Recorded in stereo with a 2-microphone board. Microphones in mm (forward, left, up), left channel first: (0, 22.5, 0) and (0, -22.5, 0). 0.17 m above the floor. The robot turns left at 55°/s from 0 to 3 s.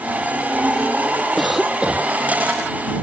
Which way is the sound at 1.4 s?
5° left.